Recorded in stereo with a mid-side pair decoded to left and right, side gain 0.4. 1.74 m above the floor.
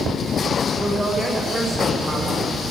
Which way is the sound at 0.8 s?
25° right.